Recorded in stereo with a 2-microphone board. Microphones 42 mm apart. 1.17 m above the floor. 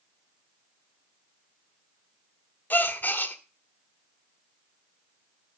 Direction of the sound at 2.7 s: 45° left (ahead or behind).